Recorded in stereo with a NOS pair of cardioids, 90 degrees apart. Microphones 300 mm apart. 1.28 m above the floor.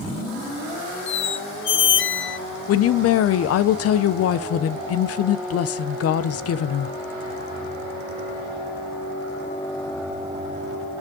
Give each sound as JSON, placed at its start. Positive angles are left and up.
{"t": 1.1, "sound": "a squeak", "azimuth_deg": 45, "distance_m": 0.5}
{"t": 2.7, "sound": "a woman speaking", "azimuth_deg": 60, "distance_m": 0.7}